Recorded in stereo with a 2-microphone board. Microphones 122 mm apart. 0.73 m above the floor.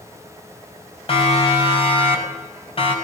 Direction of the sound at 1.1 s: 50° left (ahead or behind).